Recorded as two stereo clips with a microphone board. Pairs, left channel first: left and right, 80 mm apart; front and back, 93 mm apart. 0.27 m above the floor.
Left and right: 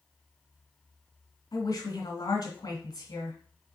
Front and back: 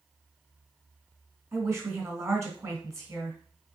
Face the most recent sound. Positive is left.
turn(degrees=125)